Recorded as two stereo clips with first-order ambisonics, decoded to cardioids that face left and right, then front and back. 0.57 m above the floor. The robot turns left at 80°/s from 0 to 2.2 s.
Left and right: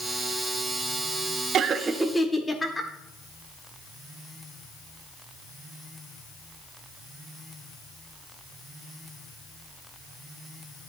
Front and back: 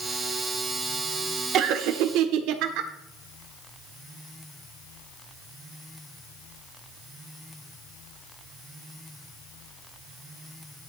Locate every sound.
1.5 s laughter: 135° right, 1.2 m; by 2.9 s 170° left, 1.2 m